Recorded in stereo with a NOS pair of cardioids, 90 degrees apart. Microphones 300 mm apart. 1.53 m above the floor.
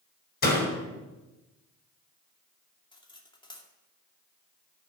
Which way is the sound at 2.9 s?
15° left.